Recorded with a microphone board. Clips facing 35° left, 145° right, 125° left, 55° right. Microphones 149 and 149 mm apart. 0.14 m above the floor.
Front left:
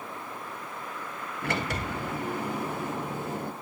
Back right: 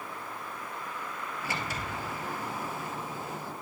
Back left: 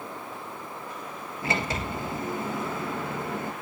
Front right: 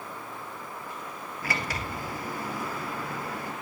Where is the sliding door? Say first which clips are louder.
Front left 7 dB, back left 4 dB; 60° left, 0.9 m.